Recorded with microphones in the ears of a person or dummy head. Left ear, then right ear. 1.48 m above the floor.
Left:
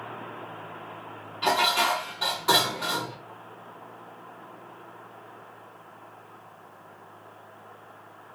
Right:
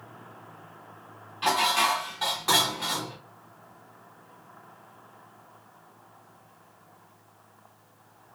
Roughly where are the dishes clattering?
Centre.